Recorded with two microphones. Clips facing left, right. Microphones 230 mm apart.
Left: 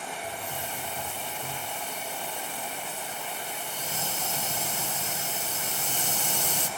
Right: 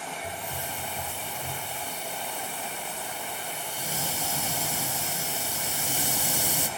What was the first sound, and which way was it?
A hiss, 10° right (ahead or behind).